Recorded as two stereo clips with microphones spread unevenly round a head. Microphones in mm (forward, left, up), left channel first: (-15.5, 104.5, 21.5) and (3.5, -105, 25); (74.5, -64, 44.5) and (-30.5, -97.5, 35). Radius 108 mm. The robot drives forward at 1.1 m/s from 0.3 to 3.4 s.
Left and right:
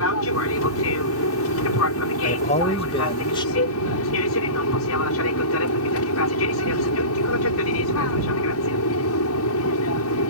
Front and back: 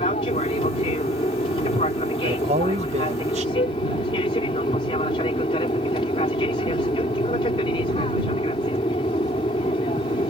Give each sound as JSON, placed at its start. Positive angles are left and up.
{"t": 0.0, "sound": "an aircraft", "azimuth_deg": 75}
{"t": 2.2, "sound": "a man speaking", "azimuth_deg": 150}
{"t": 3.5, "sound": "a flute", "azimuth_deg": 55}